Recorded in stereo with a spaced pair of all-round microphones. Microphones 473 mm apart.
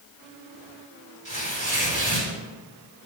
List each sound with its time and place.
1.2 s tearing paper: 65° right (ahead or behind), 4.5 m